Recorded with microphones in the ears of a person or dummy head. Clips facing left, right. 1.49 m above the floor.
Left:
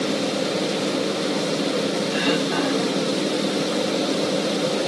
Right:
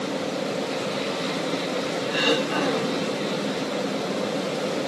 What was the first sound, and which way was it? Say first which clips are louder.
Throat clearing: left 2 dB; 55° right (ahead or behind).